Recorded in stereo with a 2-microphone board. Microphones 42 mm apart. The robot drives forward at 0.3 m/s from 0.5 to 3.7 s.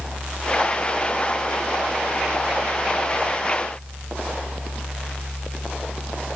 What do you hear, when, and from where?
Only background noise.